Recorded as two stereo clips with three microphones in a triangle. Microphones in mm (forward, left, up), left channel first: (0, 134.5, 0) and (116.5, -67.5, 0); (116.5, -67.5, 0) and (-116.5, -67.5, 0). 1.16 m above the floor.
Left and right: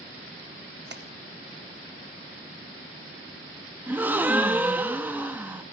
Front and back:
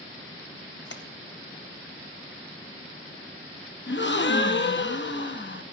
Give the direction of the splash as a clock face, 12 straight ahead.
1 o'clock.